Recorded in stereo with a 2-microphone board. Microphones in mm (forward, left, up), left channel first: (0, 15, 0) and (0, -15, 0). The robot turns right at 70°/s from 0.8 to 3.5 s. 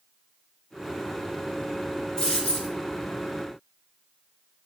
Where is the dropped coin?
25° left, 2.5 m; by 2.7 s 65° left, 2.5 m.